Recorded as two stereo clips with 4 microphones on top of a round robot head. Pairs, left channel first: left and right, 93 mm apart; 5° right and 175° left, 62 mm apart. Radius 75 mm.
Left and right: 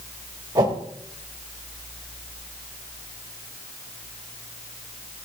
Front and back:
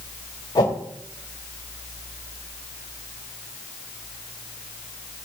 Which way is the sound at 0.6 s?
35° right.